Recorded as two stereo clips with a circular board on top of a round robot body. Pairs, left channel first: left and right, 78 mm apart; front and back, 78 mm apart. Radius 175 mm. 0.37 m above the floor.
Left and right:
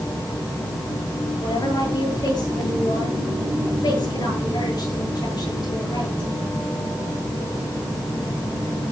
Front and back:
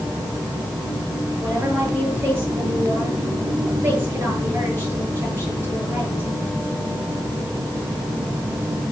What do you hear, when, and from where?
1.4 s a woman speaking: 115° left, 9.5 m